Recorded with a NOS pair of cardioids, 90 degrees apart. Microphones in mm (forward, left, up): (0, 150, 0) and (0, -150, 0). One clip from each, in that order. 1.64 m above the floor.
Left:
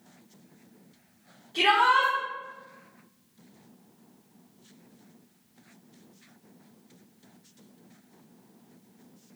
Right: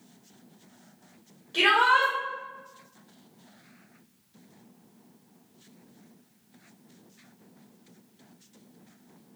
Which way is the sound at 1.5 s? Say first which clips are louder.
Right 1 dB; 60° right.